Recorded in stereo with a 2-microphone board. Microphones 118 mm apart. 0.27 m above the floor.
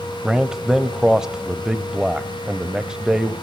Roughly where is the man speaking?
Centre.